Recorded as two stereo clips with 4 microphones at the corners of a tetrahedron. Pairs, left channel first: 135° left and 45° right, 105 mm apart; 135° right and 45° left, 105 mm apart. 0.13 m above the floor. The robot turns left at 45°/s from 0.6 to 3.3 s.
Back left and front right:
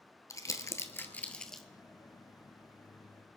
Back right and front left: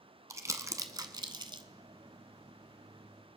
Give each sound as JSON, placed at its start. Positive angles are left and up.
{"t": 0.3, "sound": "crumpling", "azimuth_deg": 95, "distance_m": 0.9}